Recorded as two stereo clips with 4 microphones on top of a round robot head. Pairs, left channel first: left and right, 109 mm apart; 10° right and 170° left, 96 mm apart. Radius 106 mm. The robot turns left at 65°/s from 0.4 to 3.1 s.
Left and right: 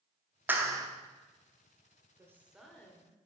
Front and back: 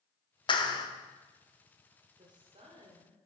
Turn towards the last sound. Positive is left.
turn(degrees=150)